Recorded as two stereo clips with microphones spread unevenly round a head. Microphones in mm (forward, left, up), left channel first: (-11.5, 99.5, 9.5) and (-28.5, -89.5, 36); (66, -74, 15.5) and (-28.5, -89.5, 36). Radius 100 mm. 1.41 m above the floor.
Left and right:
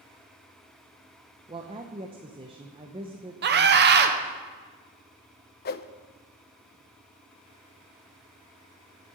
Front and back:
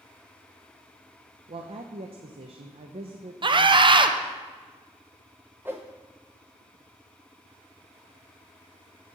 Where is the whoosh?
120° left, 0.5 m.